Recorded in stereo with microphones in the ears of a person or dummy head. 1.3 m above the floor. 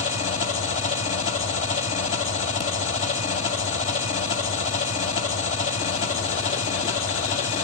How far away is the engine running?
About 1.6 m.